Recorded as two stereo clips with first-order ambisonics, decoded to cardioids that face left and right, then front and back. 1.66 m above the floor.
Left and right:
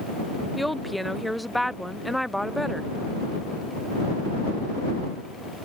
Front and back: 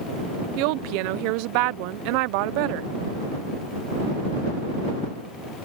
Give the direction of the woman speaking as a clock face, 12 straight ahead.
6 o'clock.